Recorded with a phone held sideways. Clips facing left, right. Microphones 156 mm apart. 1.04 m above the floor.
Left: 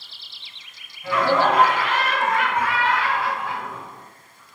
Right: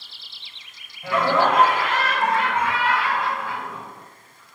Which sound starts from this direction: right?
Laughter, at 1.0 s.